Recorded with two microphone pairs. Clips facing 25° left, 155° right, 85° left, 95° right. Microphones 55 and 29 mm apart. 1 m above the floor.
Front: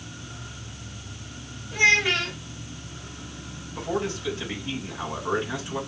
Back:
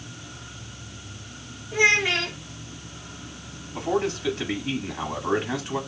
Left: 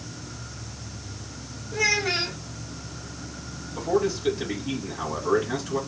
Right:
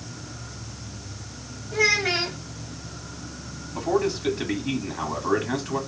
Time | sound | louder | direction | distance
1.7 | a child speaking | even, right 2 dB | 80° right | 2.5 m
3.8 | a man speaking | back 3 dB, even | 115° right | 2 m